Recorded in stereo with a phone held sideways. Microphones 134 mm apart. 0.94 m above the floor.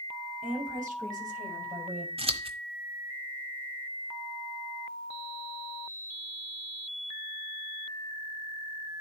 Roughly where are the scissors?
Right.